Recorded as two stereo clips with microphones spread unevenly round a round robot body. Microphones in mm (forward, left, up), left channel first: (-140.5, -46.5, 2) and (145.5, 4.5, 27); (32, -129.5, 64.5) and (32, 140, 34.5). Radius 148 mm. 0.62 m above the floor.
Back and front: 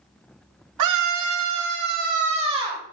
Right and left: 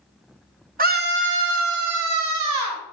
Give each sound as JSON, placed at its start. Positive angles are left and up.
{"t": 0.8, "sound": "a scream", "azimuth_deg": 35, "distance_m": 2.0}